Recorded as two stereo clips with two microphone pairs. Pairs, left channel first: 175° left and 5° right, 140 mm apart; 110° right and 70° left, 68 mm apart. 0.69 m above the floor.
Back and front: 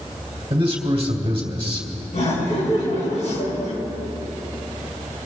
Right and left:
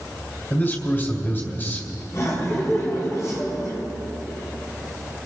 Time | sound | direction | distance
0.5 | a man speaking | 50° right | 2.5 m
2.1 | laughter | 150° right | 5.5 m